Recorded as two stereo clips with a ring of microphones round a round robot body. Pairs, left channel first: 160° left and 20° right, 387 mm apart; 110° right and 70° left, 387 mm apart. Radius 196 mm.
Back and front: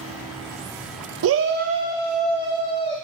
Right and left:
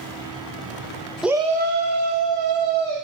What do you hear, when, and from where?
1.2 s a shout: 20° right, 0.7 m; by 3.0 s 85° left, 1.3 m